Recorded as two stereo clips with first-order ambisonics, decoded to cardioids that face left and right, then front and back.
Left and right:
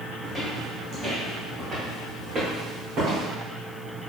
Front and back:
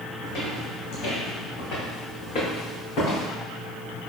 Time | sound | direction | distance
0.2 | footsteps | 15° right | 1.9 m